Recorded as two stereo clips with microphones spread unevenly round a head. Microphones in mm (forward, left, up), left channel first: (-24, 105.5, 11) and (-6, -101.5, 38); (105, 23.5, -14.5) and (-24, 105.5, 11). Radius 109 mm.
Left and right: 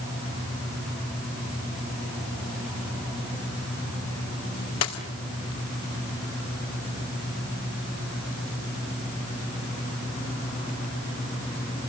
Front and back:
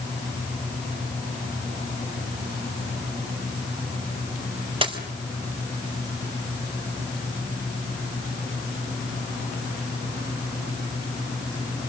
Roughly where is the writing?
No writing in this recording.